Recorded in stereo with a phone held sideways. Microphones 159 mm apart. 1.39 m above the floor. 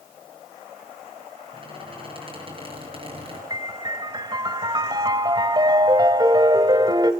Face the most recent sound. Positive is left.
turn(degrees=-30)  # may be behind; listen again after turning